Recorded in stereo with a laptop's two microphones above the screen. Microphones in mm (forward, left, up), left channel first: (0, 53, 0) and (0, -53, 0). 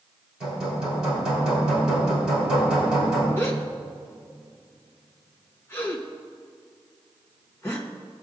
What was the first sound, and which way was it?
Hammering, 5° right (ahead or behind).